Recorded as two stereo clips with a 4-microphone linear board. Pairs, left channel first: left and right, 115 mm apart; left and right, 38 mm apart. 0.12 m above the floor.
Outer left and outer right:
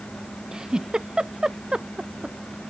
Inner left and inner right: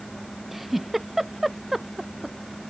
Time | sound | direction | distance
0.5 | a giggle | 5° right (ahead or behind) | ?